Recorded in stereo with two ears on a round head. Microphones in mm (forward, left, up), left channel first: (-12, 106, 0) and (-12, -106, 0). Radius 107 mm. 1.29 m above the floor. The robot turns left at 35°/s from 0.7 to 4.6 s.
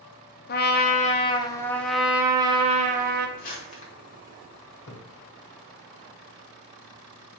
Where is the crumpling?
35° left (ahead or behind), 1.2 m; by 3.9 s 25° left (ahead or behind), 1.2 m.